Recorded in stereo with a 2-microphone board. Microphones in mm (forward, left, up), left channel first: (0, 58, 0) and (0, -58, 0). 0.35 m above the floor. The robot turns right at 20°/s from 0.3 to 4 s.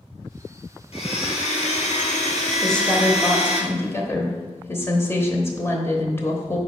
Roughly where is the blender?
Ahead left.